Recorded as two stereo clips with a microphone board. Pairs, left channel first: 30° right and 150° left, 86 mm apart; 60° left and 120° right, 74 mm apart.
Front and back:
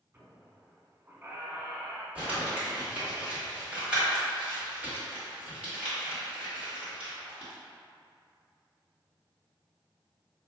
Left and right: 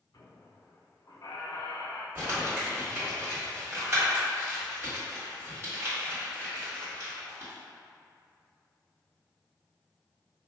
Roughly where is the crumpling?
Behind right.